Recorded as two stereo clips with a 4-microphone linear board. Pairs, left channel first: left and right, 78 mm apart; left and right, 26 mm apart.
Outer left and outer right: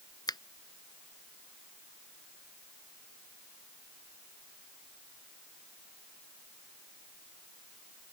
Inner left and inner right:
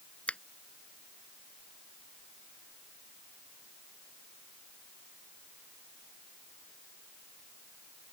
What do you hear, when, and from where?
0.3 s a finger snap: 60° left (ahead or behind)